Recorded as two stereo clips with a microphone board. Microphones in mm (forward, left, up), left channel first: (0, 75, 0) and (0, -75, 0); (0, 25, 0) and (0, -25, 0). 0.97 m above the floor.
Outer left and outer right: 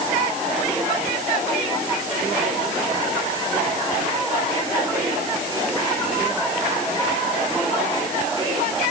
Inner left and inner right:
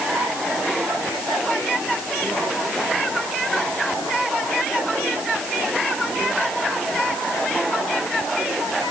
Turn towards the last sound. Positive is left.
No sound to turn to.